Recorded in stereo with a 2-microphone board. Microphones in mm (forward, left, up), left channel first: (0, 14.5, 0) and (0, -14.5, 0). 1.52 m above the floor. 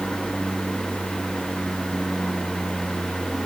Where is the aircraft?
10° right (ahead or behind).